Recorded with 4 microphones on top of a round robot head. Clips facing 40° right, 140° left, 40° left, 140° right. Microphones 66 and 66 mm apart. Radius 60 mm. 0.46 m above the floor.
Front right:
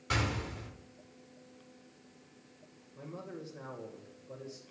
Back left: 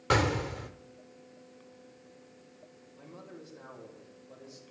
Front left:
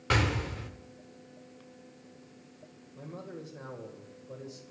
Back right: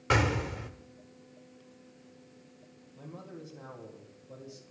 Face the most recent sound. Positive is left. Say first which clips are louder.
# front right 4 dB, front left 3 dB
turn(degrees=15)